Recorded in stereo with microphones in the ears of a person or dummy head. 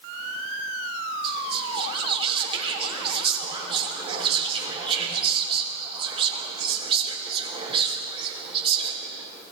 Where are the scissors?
No scissors in this recording.